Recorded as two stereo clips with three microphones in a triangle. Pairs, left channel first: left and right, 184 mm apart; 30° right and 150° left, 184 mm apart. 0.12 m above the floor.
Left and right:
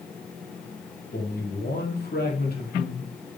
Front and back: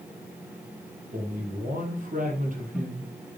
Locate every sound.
1.1 s a man speaking: 110° left, 3.5 m